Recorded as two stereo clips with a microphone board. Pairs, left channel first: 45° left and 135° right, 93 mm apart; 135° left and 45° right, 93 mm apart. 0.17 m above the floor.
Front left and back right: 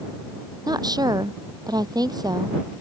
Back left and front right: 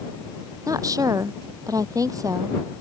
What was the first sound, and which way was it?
A woman speaking, 95° right.